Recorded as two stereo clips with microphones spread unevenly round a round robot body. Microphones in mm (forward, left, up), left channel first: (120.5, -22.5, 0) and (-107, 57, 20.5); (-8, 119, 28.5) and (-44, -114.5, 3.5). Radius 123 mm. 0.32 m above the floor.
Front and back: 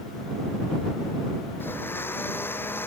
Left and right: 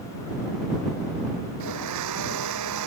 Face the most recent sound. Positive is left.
turn(degrees=-100)